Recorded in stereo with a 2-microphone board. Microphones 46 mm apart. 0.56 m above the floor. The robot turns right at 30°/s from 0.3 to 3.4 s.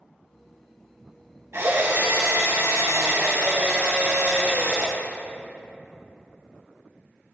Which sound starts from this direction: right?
A drill, at 1.5 s.